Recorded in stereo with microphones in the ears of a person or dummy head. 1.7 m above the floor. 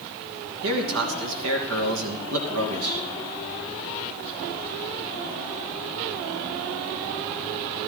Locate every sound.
0.6 s a man speaking: 90° right, 2.5 m